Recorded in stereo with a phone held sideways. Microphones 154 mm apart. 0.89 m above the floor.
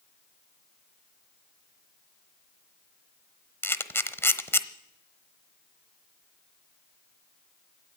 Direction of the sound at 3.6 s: 15° left (ahead or behind).